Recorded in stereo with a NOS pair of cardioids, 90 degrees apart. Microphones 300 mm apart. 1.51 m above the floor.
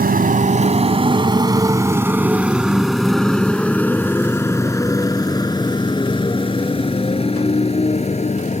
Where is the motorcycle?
30° right; by 8.6 s 25° left.